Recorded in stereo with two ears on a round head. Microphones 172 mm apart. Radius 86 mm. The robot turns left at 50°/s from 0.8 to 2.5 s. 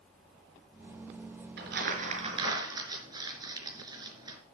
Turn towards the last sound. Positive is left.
turn(degrees=-20)  # may be behind; listen again after turning